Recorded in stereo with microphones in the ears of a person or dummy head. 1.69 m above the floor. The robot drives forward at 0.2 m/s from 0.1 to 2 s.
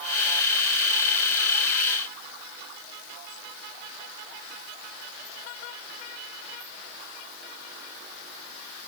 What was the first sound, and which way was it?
Only background noise.